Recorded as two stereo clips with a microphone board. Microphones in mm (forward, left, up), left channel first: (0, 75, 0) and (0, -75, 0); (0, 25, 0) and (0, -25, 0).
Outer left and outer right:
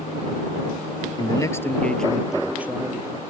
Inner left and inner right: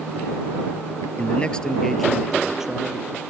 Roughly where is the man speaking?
Left.